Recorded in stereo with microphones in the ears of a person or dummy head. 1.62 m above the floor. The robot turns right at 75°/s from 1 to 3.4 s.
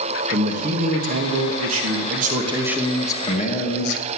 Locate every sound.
0.3 s a man speaking: 145° right, 2.5 m; by 4.0 s 35° left, 2.5 m